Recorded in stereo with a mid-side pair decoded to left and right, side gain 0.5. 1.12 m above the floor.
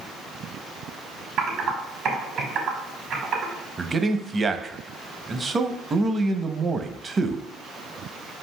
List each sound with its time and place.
1.4 s typing on a keyboard: 65° right, 1.6 m
3.8 s a man speaking: 25° right, 0.7 m